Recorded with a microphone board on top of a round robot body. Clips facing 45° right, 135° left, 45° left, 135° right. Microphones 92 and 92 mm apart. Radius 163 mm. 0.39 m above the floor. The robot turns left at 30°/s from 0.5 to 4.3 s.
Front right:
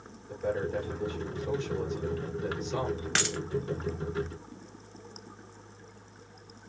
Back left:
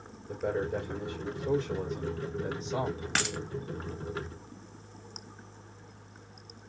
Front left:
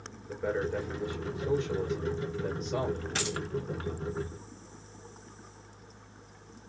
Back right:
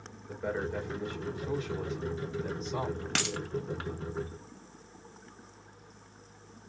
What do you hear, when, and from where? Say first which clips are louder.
0.3 s a man speaking: even, front left 3 dB; 135° left, 2.5 m; by 3.0 s 55° left, 2.5 m
3.1 s a dropped coin: back left 1 dB, even; 140° right, 0.9 m; by 3.4 s 145° right, 0.9 m